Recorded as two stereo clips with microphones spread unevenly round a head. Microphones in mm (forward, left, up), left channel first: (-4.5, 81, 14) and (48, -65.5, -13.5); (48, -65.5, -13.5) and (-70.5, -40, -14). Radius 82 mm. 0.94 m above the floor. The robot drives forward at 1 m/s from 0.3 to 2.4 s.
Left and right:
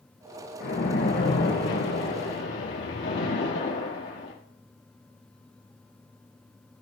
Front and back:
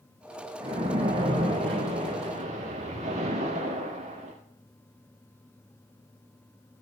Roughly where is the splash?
Left.